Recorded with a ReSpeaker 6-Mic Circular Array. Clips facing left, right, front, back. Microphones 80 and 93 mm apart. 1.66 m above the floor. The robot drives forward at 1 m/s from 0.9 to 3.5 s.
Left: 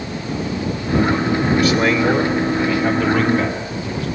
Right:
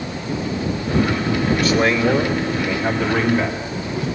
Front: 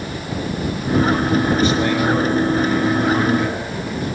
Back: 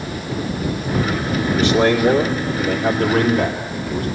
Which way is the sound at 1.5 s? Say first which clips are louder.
Left 2 dB, back 2 dB; 175° left.